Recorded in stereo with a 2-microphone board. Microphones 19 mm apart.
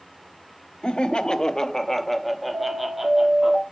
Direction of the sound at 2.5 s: 40° right (ahead or behind).